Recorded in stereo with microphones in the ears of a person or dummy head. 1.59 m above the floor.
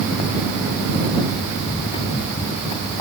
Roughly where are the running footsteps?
Left.